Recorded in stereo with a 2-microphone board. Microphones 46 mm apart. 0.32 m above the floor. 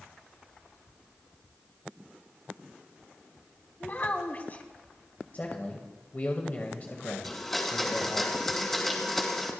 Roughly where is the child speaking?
Left.